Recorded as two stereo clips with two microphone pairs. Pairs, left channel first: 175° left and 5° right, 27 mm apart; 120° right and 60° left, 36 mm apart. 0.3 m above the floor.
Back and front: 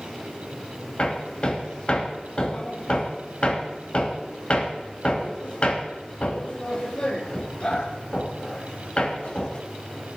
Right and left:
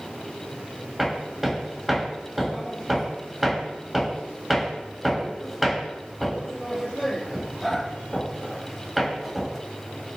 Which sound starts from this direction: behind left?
Hammering, at 1.0 s.